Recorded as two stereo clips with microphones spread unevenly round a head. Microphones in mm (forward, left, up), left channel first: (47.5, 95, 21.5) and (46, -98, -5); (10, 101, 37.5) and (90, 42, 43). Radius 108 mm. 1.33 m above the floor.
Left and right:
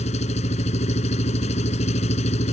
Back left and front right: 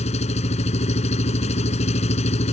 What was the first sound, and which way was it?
An engine running, 150° left.